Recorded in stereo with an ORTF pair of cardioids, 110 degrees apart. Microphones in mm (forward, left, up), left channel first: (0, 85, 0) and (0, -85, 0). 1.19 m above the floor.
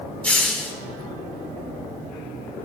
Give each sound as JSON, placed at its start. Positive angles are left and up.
{"t": 0.2, "sound": "a hiss", "azimuth_deg": 5, "distance_m": 2.5}